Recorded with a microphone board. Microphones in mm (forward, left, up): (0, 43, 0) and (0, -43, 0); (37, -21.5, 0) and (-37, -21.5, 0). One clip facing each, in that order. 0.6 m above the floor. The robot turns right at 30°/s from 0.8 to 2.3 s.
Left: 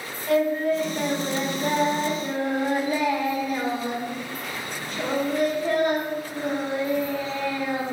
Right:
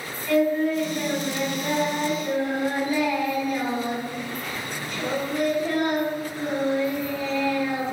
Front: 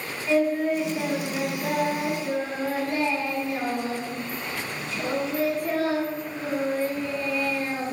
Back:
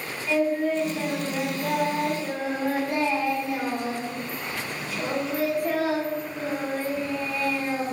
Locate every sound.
0.3 s singing: 65° left, 1.3 m; by 7.8 s 110° left, 1.3 m